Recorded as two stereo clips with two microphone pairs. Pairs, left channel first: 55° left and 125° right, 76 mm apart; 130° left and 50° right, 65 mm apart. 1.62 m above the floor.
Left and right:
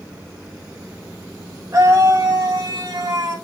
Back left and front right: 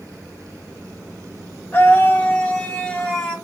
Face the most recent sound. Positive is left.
turn(degrees=-150)